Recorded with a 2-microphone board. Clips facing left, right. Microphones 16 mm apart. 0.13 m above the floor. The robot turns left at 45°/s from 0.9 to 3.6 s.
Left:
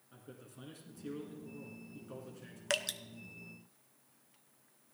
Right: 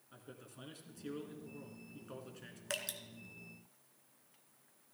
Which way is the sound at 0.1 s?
15° right (ahead or behind).